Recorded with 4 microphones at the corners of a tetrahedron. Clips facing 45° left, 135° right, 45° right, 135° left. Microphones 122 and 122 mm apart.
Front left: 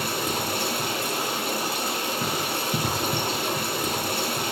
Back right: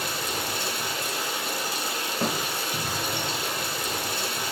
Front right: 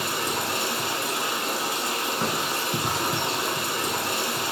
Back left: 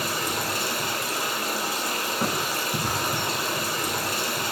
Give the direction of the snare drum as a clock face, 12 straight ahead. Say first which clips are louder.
Back right 5 dB, back left 1 dB; 5 o'clock.